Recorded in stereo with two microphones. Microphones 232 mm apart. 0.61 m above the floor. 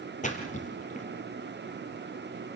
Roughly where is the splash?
Left.